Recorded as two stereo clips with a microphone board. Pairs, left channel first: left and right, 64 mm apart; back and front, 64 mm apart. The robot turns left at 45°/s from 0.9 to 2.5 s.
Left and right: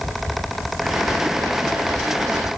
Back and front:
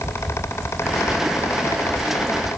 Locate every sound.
Only background noise.